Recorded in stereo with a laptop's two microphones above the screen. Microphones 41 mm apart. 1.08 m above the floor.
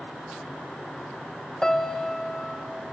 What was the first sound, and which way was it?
A piano, 15° left (ahead or behind).